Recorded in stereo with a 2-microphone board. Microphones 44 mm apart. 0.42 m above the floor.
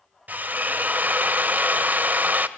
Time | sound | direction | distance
0.3 | a drill | 40° right (ahead or behind) | 0.8 m